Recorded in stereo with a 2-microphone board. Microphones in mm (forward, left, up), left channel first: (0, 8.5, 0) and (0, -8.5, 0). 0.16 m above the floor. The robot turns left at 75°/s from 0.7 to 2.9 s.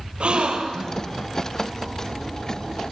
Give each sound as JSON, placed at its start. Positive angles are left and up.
{"t": 0.2, "sound": "a gasp", "side_deg": -70, "distance_m": 3.0}